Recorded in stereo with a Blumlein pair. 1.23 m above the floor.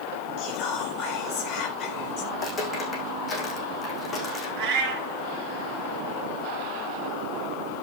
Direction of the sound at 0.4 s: 35° left.